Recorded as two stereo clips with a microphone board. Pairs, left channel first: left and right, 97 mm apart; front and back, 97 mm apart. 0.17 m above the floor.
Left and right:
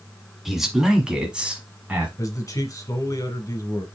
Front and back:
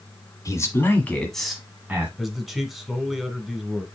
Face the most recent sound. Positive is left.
turn(degrees=95)